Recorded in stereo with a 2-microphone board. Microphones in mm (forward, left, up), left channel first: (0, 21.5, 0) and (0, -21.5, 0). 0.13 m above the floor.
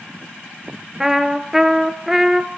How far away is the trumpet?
About 1.2 m.